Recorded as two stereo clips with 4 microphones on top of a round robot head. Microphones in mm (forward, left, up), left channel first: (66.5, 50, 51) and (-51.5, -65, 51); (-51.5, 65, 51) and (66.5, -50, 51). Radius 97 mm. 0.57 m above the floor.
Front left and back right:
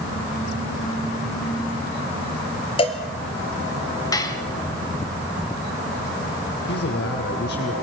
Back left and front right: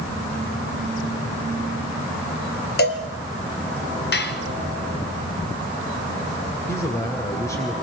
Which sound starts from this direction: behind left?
Dishes clattering, at 4.1 s.